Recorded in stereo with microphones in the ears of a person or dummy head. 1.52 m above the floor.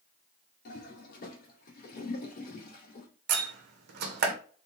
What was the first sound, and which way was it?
A toilet flushing, 50° left (ahead or behind).